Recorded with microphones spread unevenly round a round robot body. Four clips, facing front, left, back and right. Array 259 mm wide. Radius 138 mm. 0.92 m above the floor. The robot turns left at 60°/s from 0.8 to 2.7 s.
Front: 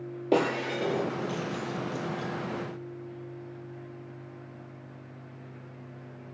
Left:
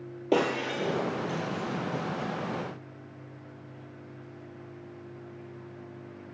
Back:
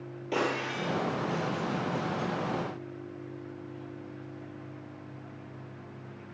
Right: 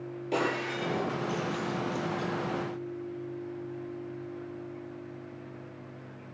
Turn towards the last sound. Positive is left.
turn(degrees=-70)